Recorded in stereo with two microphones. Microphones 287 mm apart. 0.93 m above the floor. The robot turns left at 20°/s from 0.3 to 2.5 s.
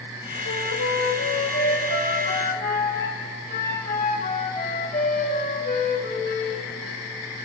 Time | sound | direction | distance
0.5 | a flute | 75° left | 3.5 m